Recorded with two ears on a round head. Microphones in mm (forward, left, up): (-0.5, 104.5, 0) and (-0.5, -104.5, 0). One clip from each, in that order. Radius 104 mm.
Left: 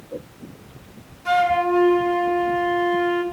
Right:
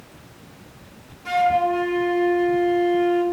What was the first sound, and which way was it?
A flute, 5° left (ahead or behind).